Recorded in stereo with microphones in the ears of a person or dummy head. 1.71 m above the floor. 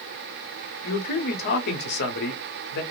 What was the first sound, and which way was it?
A man speaking, 60° left (ahead or behind).